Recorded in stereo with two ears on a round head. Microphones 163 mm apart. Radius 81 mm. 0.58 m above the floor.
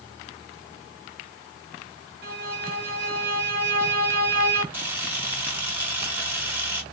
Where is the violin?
60° right (ahead or behind), 1.9 m.